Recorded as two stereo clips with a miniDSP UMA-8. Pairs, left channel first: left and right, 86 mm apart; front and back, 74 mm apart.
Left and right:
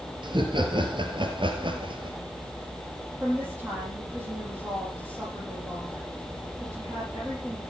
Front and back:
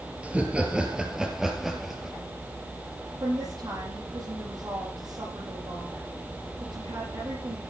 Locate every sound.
0.2 s laughter: 110° right, 3.5 m; by 2.2 s 90° right, 3.5 m
3.2 s a woman speaking: 165° right, 7 m